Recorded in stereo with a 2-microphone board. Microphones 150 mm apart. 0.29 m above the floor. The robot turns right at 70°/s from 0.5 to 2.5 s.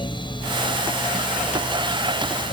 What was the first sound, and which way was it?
Only background noise.